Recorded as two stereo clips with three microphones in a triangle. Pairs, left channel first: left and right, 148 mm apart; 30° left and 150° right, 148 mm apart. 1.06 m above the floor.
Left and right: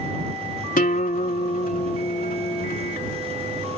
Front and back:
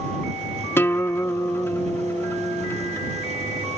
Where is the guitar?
105° left.